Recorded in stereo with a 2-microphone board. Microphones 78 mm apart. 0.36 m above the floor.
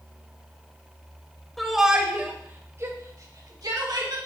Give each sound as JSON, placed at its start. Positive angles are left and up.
{"t": 1.6, "sound": "a shout", "side_deg": 0, "distance_m": 1.2}